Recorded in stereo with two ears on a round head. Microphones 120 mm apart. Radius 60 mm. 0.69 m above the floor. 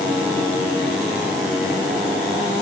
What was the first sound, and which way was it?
Only background noise.